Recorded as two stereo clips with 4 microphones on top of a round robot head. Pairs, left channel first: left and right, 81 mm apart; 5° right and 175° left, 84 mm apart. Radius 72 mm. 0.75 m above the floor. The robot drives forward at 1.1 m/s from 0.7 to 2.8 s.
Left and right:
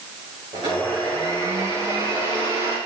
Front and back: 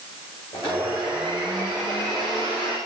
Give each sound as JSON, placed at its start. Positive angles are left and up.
{"t": 0.5, "sound": "a blender", "azimuth_deg": -50, "distance_m": 9.0}